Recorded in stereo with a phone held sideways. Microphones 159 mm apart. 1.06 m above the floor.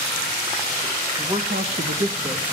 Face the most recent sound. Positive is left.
turn(degrees=-45)  # may be behind; listen again after turning